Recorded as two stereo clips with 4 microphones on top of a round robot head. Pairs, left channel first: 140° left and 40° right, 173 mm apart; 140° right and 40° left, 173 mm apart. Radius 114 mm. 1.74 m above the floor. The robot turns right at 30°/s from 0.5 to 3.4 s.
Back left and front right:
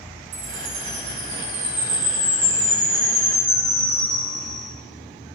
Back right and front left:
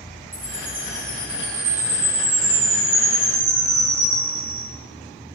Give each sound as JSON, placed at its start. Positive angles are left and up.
{"t": 0.3, "sound": "a chime", "azimuth_deg": -45, "distance_m": 1.7}